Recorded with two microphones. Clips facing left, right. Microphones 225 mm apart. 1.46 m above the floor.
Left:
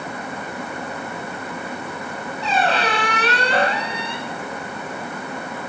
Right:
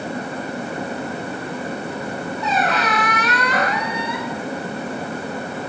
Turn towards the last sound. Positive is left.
turn(degrees=30)  # may be behind; listen again after turning